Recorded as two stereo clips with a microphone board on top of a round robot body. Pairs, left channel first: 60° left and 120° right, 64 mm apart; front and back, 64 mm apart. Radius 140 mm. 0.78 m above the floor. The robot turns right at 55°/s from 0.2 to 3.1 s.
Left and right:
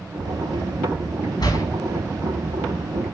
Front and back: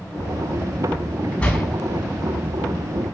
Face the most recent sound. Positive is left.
turn(degrees=170)